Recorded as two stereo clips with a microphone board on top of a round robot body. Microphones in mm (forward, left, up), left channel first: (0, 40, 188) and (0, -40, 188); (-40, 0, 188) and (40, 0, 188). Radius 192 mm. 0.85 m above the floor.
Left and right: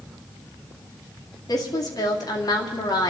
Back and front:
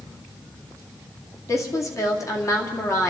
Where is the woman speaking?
130° left, 2 m.